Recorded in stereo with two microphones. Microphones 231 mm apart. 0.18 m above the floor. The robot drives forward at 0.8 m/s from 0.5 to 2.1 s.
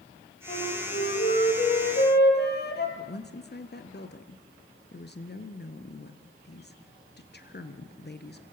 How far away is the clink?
I don't hear a clink.